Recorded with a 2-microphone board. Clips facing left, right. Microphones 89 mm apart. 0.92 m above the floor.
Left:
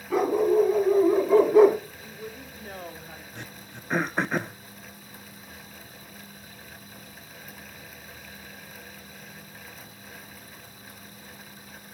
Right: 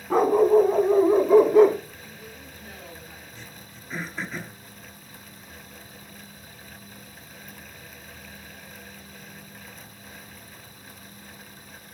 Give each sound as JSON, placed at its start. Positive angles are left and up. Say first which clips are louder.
{"t": 0.1, "sound": "a dog barking", "louder": "right 4 dB", "side_deg": -35, "distance_m": 2.5}
{"t": 2.0, "sound": "a woman speaking", "louder": "left 3 dB", "side_deg": 45, "distance_m": 2.5}
{"t": 3.4, "sound": "throat clearing", "louder": "left 3 dB", "side_deg": 60, "distance_m": 0.7}